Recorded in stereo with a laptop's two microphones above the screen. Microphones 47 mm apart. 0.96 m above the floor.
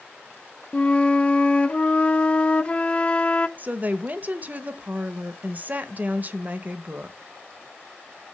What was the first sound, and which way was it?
A flute, 25° left (ahead or behind).